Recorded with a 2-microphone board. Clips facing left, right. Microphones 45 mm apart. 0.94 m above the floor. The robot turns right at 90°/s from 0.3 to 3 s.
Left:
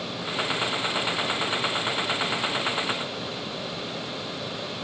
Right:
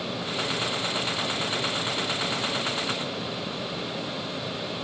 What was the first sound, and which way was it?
Only background noise.